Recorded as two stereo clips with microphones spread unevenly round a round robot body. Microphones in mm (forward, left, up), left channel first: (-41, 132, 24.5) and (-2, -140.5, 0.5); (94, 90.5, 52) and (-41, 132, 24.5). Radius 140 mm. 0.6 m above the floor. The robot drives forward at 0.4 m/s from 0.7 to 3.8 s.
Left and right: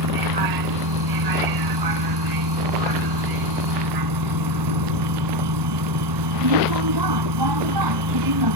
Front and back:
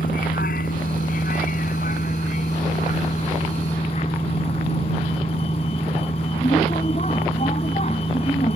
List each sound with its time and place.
0.0 s a vehicle: 70° right; by 8.6 s 85° right